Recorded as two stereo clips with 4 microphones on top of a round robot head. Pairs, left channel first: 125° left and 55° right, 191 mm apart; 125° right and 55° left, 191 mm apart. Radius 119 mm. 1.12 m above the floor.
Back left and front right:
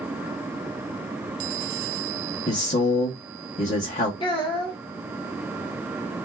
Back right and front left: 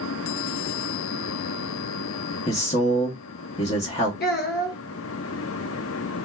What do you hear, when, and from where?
2.5 s a man speaking: 175° left, 1.0 m
4.2 s a child speaking: 170° right, 1.2 m